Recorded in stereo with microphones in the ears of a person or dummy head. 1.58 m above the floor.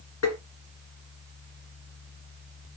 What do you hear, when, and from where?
0.2 s tapping: 75° left (ahead or behind), 2 m